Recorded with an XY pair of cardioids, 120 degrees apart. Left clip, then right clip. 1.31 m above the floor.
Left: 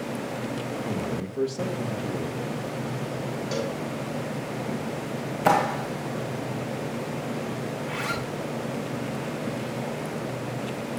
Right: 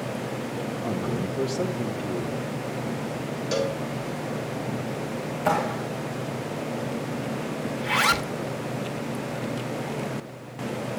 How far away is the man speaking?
About 2 m.